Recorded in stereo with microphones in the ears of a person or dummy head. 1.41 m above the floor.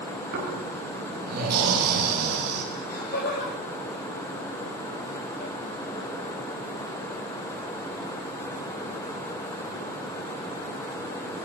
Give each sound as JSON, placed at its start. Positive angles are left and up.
{"t": 0.3, "sound": "snoring", "side_deg": -55, "distance_m": 9.5}
{"t": 2.7, "sound": "laughter", "side_deg": 50, "distance_m": 9.5}